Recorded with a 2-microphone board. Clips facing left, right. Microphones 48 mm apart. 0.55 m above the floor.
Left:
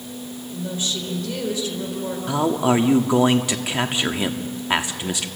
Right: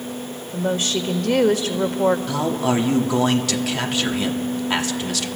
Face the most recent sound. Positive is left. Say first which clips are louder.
# left 2 dB
turn(degrees=20)  # may be behind; listen again after turning